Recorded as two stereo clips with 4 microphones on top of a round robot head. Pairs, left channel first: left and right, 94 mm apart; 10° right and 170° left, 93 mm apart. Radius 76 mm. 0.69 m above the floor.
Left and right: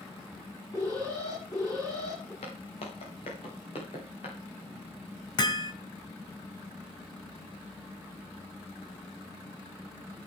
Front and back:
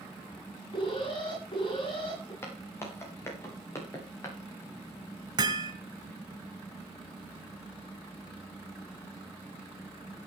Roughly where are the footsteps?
Ahead left.